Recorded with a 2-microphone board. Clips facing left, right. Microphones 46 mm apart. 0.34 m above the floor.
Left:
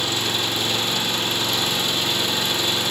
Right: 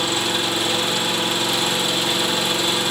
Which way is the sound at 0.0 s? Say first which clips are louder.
Right 2 dB; 10° right (ahead or behind).